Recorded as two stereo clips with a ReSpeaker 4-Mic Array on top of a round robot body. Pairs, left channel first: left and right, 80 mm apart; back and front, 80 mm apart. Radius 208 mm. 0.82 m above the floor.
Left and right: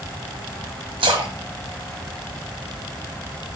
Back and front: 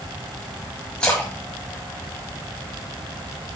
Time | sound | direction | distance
1.0 | a splash | 100° right | 1.5 m